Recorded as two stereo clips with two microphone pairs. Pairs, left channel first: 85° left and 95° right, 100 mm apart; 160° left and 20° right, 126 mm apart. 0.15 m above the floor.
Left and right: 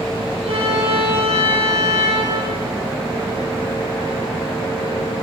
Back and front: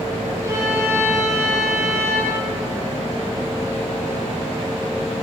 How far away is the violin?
About 6.5 m.